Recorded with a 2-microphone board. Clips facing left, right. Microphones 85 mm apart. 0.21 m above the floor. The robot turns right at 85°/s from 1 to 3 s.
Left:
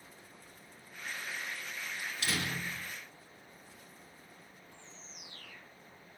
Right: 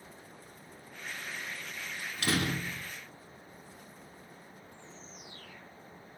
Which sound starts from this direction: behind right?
A door slam, at 2.0 s.